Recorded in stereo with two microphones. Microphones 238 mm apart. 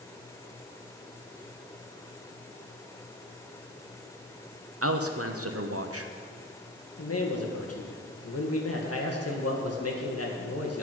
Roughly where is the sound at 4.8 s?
Right.